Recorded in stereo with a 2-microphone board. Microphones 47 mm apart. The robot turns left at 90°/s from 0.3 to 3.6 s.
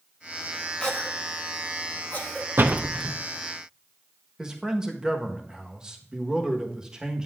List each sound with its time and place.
0.8 s a cough: 15° left (ahead or behind), 1.5 m
2.6 s a door slam: 50° right (ahead or behind), 0.6 m; by 3.1 s centre (ahead or behind), 0.6 m
4.4 s a man speaking: 15° right (ahead or behind), 1.1 m